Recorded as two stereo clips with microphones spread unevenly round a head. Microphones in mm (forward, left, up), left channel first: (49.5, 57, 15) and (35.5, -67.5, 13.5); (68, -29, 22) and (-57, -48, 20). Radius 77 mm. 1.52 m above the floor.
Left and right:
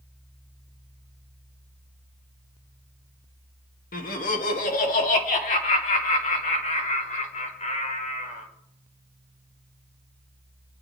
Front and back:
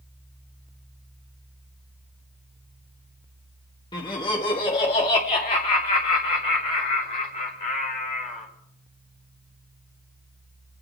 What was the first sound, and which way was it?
Laughter, 75° left.